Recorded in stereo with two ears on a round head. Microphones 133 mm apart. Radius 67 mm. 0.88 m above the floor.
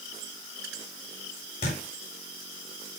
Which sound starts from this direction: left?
A thud, at 1.6 s.